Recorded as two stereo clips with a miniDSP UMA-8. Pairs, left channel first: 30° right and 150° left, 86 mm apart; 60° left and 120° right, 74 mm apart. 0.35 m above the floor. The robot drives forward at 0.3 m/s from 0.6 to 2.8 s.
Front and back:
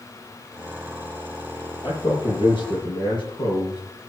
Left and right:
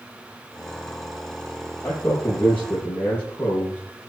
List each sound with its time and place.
1.8 s a man speaking: straight ahead, 7.5 m